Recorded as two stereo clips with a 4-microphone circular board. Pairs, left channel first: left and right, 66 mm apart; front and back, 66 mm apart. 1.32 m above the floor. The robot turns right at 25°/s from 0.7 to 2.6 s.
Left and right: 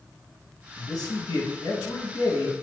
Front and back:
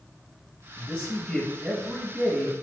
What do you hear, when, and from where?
0.8 s a man speaking: 60° left, 0.9 m; by 2.5 s 105° left, 0.9 m